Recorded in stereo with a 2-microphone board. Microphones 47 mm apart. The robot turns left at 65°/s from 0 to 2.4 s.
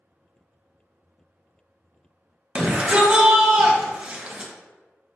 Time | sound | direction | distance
2.5 | a shout | 20° right (ahead or behind) | 0.7 m